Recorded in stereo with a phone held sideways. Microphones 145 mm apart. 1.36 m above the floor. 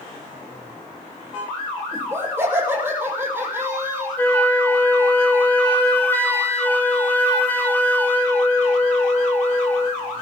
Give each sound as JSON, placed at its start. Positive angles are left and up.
{"t": 1.9, "sound": "laughter", "side_deg": -15, "distance_m": 7.0}
{"t": 4.2, "sound": "a flute", "side_deg": 15, "distance_m": 3.0}